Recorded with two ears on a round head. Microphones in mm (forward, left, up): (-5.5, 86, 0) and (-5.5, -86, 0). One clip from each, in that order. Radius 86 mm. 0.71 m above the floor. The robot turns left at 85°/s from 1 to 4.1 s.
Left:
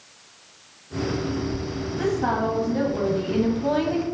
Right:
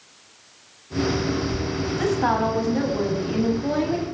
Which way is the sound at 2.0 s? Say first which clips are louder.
Right 2 dB; 95° right.